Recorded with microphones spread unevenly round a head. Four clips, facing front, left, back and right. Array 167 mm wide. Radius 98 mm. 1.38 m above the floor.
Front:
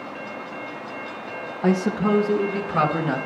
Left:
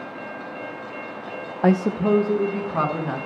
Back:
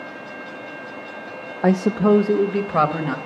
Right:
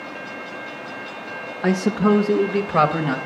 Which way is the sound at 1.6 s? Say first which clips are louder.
Right 1 dB, back 4 dB; 145° left.